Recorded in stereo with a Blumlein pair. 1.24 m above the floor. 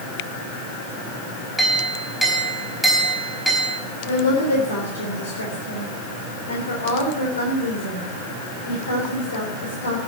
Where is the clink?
5° left, 4.5 m.